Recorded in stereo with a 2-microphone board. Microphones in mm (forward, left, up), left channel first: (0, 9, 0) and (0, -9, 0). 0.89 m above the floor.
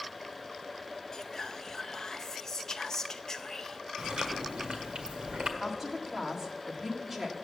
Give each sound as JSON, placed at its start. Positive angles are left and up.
{"t": 1.1, "sound": "whispering", "side_deg": 30, "distance_m": 0.7}
{"t": 4.0, "sound": "chewing", "side_deg": -75, "distance_m": 1.5}
{"t": 5.6, "sound": "a woman speaking", "side_deg": -25, "distance_m": 1.6}